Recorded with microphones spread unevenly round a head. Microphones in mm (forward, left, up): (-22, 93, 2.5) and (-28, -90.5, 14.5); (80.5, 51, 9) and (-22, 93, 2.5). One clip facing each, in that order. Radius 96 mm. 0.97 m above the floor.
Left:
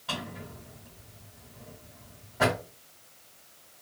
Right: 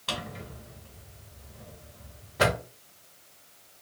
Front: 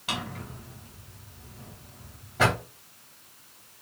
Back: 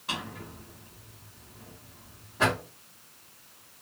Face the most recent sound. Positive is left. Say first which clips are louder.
# right 1 dB, front 2 dB
turn(degrees=-75)